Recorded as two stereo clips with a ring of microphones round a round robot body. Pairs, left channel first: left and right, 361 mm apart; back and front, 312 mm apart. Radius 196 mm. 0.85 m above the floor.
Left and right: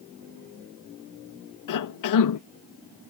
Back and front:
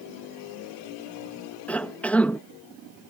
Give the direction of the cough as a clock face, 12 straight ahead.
9 o'clock.